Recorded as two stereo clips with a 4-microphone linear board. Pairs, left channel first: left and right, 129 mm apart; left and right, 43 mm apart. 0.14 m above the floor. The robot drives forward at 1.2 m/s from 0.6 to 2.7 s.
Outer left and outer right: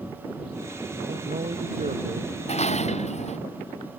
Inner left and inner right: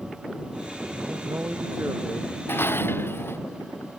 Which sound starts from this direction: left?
Dishes clattering, at 2.5 s.